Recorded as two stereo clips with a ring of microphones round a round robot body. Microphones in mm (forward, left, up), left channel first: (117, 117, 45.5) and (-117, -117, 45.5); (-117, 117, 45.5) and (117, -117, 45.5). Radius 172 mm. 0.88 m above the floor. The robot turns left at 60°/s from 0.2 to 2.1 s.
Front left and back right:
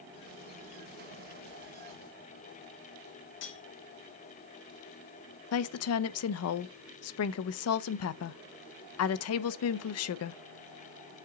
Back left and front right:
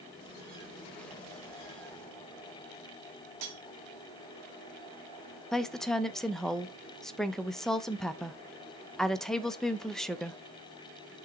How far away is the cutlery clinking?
About 1.5 m.